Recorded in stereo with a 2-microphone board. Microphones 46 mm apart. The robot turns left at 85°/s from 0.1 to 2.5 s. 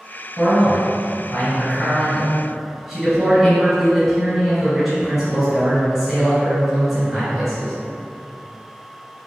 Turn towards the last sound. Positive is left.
turn(degrees=-10)